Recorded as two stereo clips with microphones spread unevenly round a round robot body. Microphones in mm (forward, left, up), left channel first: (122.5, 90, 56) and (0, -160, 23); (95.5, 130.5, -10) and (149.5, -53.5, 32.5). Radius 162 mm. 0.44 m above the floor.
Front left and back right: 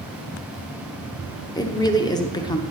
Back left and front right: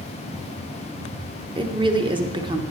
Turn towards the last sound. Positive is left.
turn(degrees=-10)